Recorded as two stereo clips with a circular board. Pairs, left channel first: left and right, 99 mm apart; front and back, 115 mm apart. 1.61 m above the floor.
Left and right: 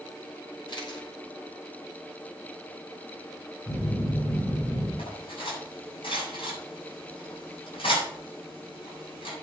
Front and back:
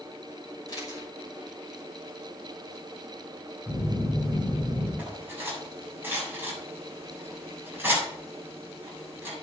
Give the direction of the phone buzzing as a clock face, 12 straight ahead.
9 o'clock.